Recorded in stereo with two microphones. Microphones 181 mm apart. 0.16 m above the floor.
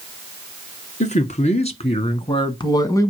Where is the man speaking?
40° left (ahead or behind), 2 m; by 3.1 s 15° left (ahead or behind), 1.4 m.